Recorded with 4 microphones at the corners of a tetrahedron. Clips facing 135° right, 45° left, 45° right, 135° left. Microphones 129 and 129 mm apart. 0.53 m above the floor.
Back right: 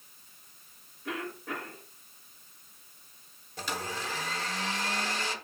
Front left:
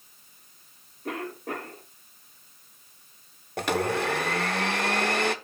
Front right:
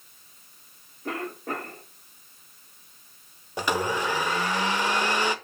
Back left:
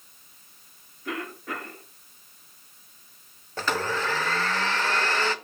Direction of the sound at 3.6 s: 30° left.